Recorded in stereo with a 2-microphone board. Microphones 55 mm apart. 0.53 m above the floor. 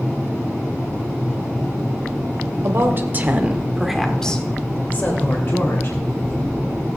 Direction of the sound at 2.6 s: 55° right (ahead or behind).